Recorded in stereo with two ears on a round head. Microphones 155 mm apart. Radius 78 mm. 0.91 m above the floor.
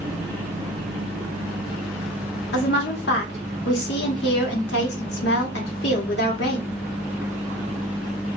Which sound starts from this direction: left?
A woman speaking, at 2.5 s.